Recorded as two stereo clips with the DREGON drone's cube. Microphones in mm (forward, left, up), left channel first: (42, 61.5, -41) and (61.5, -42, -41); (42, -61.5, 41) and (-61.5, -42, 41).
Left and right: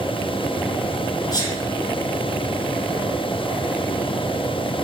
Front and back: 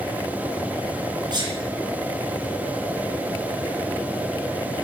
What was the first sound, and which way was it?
A sneeze, 140° left.